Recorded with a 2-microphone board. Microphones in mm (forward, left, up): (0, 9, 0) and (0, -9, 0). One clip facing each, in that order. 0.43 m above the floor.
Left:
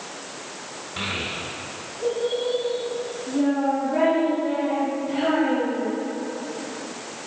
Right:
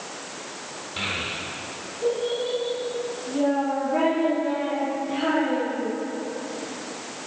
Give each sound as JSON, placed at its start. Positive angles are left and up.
{"t": 1.0, "sound": "a child speaking", "side_deg": -5, "distance_m": 0.6}